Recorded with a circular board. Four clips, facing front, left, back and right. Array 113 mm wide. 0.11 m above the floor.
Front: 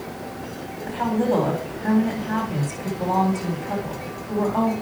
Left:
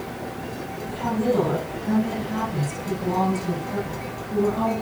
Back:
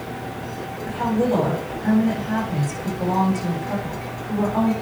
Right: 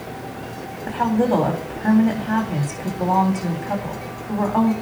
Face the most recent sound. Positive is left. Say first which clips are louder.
# right 5 dB, back 1 dB
turn(degrees=-90)